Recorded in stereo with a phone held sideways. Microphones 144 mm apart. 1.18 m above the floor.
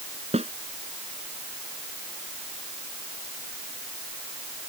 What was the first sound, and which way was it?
A snare drum, 50° right (ahead or behind).